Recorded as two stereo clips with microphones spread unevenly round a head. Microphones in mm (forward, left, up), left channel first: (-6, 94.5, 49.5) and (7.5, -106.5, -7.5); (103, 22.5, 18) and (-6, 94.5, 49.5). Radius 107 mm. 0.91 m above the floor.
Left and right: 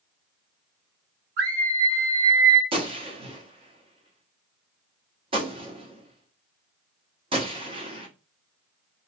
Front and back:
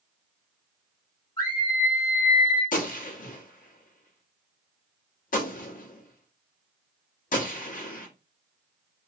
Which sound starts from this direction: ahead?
A gunshot, at 2.7 s.